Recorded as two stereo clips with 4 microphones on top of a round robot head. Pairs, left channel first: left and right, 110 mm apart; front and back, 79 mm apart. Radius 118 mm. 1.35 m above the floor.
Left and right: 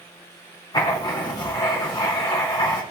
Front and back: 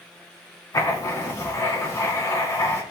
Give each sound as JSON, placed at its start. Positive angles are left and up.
{"t": 0.7, "sound": "writing", "azimuth_deg": 40, "distance_m": 2.5}